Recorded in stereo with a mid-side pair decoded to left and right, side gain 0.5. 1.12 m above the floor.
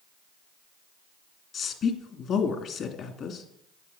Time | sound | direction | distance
1.5 | a woman speaking | 55° left | 2.5 m